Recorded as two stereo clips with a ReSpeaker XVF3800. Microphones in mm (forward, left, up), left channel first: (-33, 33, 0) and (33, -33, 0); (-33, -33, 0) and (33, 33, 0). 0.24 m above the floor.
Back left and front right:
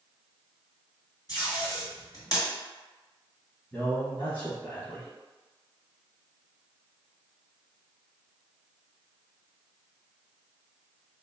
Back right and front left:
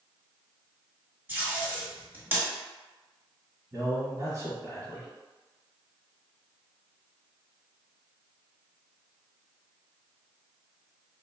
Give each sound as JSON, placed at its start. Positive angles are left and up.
{"t": 1.3, "sound": "tape being pulled", "azimuth_deg": 105, "distance_m": 1.6}
{"t": 3.7, "sound": "a man speaking", "azimuth_deg": 80, "distance_m": 1.3}